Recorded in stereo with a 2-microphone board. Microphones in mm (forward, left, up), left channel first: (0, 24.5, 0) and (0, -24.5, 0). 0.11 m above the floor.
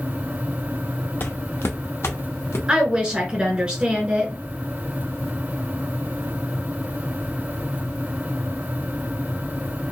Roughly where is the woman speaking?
Centre.